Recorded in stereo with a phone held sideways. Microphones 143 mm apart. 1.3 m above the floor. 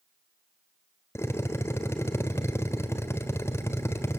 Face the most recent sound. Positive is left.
turn(degrees=20)  # may be behind; listen again after turning